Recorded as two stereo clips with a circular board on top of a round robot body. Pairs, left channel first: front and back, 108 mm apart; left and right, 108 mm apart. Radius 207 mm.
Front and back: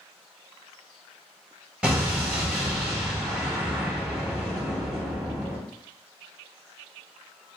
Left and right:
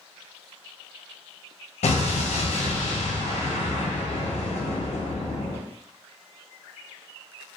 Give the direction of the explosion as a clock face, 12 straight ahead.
9 o'clock.